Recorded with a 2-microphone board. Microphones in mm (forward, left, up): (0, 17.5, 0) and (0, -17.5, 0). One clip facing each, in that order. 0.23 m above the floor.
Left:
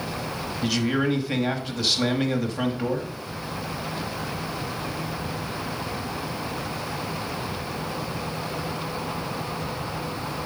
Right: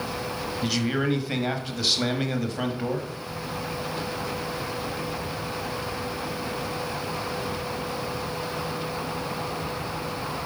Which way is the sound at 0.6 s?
Centre (ahead or behind).